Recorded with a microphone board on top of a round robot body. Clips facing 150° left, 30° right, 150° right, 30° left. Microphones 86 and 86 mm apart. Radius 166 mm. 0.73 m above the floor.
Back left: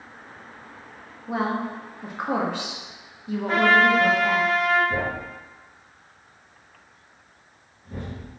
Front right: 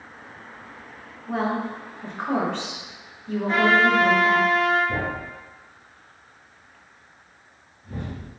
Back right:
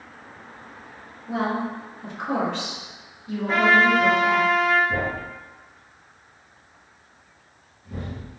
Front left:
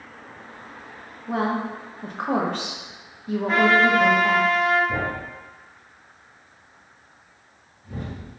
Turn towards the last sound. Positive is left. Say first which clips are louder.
# back left 1 dB, even
turn(degrees=-15)